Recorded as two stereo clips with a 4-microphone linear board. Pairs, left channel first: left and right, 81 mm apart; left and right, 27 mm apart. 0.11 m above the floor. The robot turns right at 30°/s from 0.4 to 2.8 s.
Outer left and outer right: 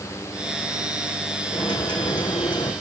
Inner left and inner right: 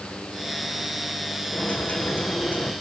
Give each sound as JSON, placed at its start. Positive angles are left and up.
{"t": 1.5, "sound": "a dropped coin", "azimuth_deg": 60, "distance_m": 3.0}